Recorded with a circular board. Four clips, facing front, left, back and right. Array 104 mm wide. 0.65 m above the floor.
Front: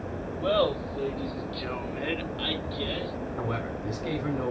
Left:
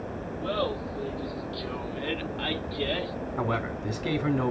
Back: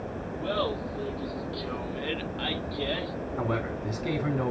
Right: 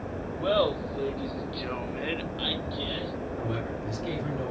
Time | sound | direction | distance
0.4 | laughter | 55° right | 2.5 m
3.4 | a man speaking | 110° left | 2 m